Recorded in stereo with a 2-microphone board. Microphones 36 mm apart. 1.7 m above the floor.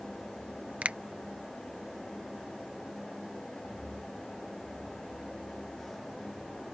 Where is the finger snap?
40° right (ahead or behind).